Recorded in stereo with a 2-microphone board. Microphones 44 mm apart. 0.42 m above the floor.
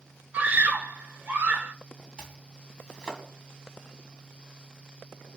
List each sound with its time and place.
0.3 s a scream: 35° right (ahead or behind), 1.0 m
2.2 s chopping: 20° right (ahead or behind), 1.9 m